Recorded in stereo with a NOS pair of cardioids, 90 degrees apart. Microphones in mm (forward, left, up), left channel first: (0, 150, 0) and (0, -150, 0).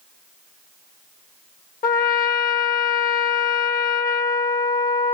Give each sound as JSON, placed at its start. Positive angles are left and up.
{"t": 1.8, "sound": "a trumpet", "azimuth_deg": 30, "distance_m": 0.7}